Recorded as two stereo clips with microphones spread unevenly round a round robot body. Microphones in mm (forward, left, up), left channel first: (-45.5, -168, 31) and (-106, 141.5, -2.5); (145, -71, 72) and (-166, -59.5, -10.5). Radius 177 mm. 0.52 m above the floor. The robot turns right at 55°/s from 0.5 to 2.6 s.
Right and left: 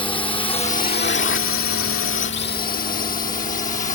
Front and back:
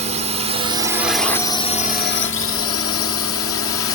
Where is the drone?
150° right; by 3.9 s 25° right.